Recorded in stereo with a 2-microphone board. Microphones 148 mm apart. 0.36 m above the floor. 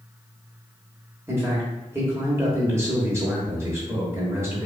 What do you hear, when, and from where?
1.3 s a man speaking: 20° right (ahead or behind), 0.9 m